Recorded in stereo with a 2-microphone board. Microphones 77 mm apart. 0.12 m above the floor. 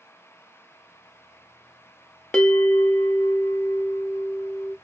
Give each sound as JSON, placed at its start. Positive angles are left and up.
{"t": 2.3, "sound": "a bell", "side_deg": 15, "distance_m": 1.1}